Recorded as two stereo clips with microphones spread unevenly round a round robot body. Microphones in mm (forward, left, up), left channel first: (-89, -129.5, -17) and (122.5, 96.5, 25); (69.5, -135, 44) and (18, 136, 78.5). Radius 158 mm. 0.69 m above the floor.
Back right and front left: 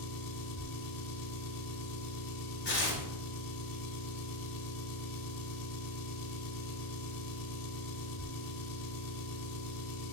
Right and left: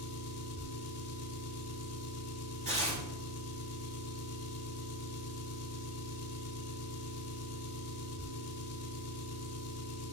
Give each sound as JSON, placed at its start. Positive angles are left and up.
{"t": 0.0, "sound": "an engine running", "azimuth_deg": -115, "distance_m": 2.0}
{"t": 2.6, "sound": "tearing paper", "azimuth_deg": 170, "distance_m": 5.5}